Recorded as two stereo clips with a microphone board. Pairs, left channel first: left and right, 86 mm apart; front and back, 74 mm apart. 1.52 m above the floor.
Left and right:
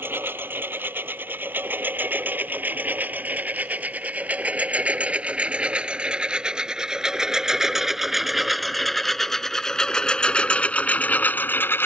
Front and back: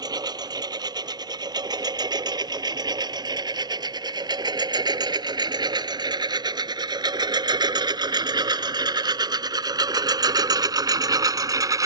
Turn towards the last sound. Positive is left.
turn(degrees=150)